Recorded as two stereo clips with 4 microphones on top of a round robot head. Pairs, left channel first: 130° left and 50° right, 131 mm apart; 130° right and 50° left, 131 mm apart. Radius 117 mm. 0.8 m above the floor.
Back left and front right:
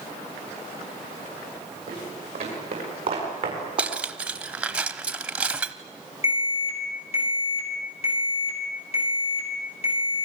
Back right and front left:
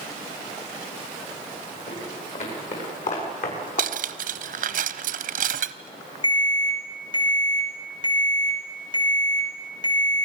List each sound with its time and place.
1.9 s footsteps: 90° right, 10 m; by 3.9 s 100° right, 9.5 m
3.8 s cutlery clinking: 30° left, 0.9 m
6.2 s an alarm: 175° left, 7.5 m